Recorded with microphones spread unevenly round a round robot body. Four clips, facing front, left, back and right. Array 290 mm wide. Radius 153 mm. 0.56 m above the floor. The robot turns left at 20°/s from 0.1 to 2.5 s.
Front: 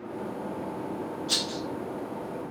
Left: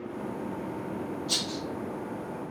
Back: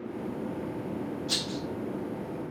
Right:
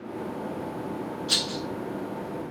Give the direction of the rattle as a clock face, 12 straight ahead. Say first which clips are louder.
Right 2 dB, front 1 dB; 6 o'clock.